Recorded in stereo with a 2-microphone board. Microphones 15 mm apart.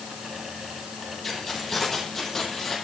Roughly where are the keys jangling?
Centre.